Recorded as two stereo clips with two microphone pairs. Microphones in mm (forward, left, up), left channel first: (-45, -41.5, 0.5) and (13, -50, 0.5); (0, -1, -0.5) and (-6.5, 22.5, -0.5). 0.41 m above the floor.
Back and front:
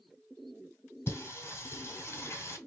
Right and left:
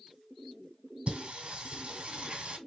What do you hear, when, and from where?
1.1 s singing: 135° left, 1.7 m